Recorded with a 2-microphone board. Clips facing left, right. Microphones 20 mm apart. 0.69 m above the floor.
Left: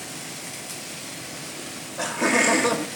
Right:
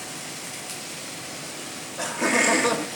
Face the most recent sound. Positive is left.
turn(degrees=-10)  # may be behind; listen again after turning